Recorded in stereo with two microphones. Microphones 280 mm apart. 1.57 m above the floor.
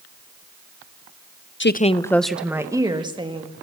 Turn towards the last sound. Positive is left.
turn(degrees=-20)  # may be behind; listen again after turning